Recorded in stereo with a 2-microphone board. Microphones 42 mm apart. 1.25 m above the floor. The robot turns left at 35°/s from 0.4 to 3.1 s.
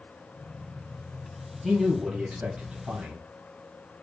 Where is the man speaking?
15° right, 1.1 m; by 3.2 s 65° right, 1.1 m.